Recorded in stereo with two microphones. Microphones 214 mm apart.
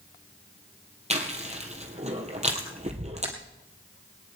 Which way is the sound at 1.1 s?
30° right (ahead or behind).